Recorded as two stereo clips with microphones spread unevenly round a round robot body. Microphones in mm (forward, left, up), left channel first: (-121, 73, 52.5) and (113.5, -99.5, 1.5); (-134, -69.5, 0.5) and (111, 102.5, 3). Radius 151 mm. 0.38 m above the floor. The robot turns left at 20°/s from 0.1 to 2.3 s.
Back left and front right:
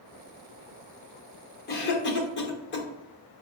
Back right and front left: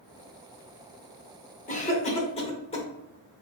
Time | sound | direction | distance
1.7 | a cough | straight behind | 0.8 m